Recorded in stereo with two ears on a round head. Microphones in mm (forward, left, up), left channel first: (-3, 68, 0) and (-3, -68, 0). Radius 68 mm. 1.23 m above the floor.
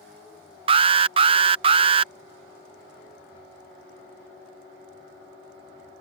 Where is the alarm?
35° right (ahead or behind).